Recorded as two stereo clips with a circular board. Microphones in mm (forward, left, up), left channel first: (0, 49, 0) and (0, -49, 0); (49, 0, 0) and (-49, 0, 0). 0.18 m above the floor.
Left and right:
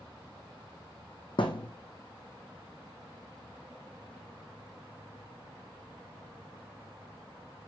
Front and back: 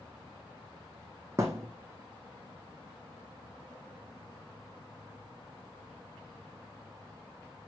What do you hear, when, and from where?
1.4 s a thud: 120° left, 1.0 m